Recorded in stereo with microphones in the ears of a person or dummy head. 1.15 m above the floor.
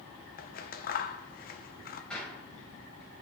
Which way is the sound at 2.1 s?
10° left (ahead or behind).